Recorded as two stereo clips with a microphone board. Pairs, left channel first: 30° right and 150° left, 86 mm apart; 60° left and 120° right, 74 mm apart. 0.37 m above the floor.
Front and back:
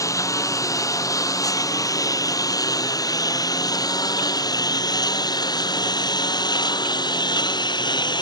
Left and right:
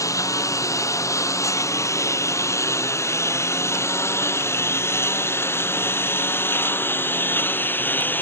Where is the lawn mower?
20° left; by 8.2 s 5° right.